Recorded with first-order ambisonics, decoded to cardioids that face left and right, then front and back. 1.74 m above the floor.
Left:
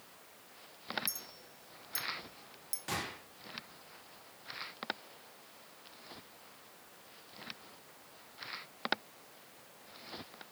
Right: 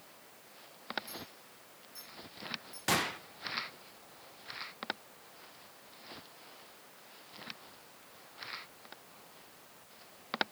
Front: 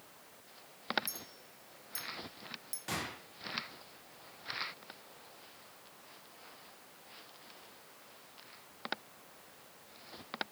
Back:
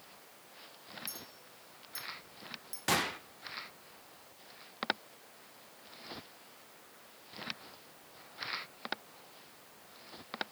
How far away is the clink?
About 1.4 m.